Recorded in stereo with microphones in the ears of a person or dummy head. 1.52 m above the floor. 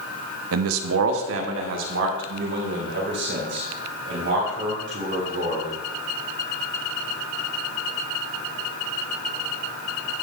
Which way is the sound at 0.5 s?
85° right.